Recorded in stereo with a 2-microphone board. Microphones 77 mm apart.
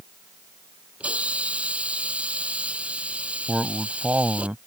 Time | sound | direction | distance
1.0 | a hiss | 15° right (ahead or behind) | ?
3.5 | a man speaking | 20° right (ahead or behind) | ?